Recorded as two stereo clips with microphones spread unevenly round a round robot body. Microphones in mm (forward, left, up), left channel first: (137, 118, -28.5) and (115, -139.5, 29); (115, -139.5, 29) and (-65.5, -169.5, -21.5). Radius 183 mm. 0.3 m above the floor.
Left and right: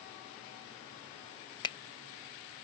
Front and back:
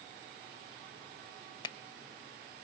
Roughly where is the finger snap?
Left.